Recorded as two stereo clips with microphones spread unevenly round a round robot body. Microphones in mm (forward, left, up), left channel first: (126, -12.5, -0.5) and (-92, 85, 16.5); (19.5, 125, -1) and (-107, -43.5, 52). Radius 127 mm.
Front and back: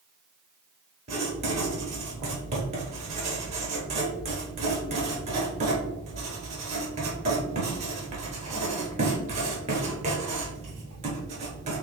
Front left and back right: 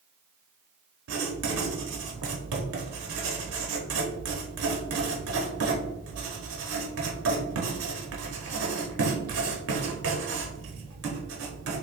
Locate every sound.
1.1 s writing: 135° right, 1.0 m